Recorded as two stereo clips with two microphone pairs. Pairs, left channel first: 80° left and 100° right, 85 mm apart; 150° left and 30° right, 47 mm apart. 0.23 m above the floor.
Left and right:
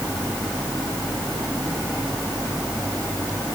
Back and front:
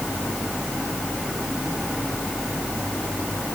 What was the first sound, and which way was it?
Only background noise.